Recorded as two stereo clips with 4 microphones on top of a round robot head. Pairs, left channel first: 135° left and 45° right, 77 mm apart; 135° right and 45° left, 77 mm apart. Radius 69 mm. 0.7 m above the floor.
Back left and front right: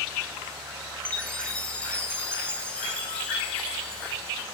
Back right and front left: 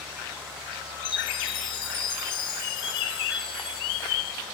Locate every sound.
1.1 s a chime: 150° right, 7 m